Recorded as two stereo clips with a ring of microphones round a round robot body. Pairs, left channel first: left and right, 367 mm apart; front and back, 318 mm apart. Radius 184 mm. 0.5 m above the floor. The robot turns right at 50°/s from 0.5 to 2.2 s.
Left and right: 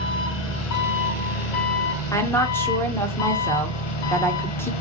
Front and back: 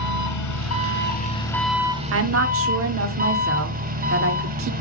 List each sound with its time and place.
0.0 s an engine running: 30° left, 2 m; by 4.8 s 115° left, 2 m
2.1 s a woman speaking: 165° left, 1.3 m; by 4.7 s 170° left, 1.3 m